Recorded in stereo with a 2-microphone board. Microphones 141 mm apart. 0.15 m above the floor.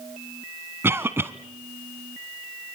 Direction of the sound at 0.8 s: 20° right (ahead or behind).